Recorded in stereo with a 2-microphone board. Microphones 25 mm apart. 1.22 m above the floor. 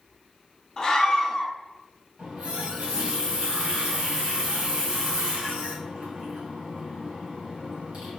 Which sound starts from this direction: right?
A running tap, at 2.2 s.